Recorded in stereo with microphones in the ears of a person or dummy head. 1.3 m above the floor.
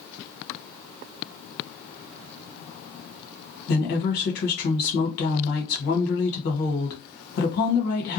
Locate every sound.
3.7 s a woman speaking: 60° left (ahead or behind), 1.3 m